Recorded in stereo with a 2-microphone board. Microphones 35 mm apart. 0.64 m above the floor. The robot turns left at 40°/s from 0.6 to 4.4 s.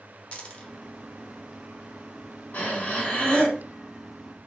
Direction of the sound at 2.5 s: 55° left.